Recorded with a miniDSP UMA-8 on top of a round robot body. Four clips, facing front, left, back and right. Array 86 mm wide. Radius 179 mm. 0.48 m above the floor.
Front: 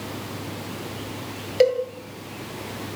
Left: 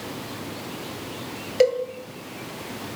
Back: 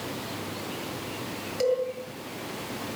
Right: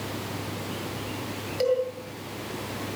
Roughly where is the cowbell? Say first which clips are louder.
Left 5 dB, front 7 dB; ahead left.